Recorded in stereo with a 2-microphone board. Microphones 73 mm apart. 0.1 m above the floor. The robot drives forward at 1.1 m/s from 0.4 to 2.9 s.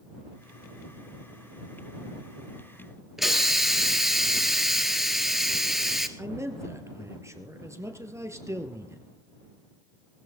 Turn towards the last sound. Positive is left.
turn(degrees=-40)  # may be behind; listen again after turning